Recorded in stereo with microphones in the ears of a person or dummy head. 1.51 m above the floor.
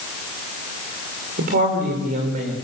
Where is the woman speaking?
50° right (ahead or behind), 6.5 m; by 2.5 s 40° right (ahead or behind), 7 m.